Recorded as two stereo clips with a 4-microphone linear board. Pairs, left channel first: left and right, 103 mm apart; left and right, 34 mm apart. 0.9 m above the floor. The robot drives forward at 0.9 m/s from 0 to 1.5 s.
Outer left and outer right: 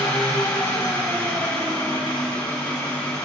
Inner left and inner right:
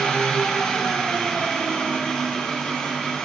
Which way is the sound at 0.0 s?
35° left (ahead or behind).